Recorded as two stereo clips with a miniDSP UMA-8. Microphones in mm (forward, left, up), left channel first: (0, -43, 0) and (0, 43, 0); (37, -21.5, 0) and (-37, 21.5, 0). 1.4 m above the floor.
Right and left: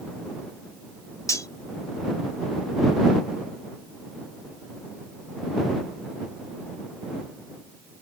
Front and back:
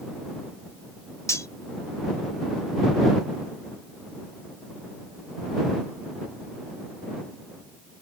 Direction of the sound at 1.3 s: 65° right.